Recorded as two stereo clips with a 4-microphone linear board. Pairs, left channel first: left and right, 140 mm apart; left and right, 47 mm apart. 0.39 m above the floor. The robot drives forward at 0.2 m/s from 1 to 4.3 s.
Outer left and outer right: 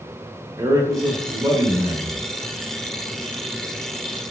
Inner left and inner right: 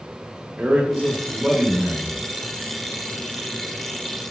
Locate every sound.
0.6 s a man speaking: 25° right (ahead or behind), 0.8 m